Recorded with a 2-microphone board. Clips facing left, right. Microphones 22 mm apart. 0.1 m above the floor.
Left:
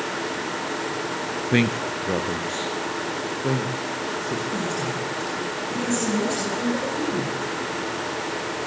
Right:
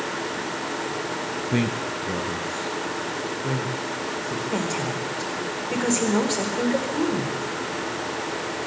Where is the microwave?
I don't hear a microwave.